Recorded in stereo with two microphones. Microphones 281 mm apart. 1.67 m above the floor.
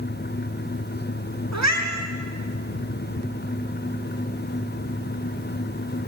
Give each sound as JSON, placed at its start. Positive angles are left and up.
{"t": 1.5, "sound": "a cat meowing", "side_deg": -70, "distance_m": 5.0}